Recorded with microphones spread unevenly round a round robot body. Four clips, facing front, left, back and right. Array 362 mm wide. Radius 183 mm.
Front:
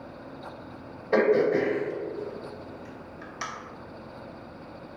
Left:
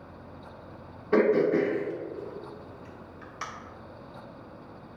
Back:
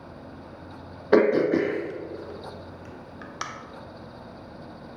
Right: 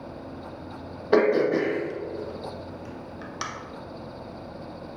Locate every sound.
1.1 s throat clearing: 175° right, 0.9 m